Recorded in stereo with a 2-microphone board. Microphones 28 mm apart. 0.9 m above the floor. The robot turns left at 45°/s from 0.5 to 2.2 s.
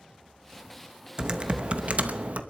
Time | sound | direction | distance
1.2 | typing on a keyboard | 30° right | 0.8 m